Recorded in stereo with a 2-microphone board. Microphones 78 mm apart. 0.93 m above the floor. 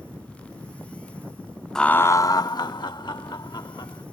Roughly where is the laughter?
Centre.